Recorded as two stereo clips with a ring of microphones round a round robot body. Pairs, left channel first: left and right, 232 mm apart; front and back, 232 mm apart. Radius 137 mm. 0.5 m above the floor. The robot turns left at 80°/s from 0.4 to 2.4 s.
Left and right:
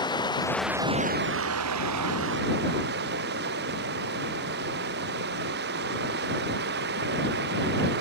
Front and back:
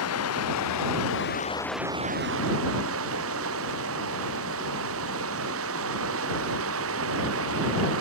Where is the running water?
20° left; by 8.0 s 140° right.